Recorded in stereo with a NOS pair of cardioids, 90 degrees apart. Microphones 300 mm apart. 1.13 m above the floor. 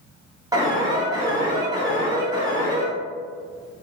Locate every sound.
0.5 s an alarm: 15° right, 1.2 m